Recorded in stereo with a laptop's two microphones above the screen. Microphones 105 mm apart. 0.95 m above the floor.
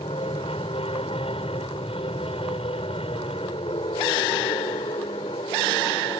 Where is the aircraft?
70° left (ahead or behind).